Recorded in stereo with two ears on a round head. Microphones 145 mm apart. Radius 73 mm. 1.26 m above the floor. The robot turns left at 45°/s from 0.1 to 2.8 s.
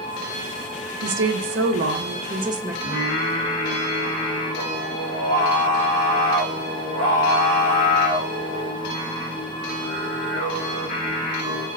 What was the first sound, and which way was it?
A woman speaking, 85° right.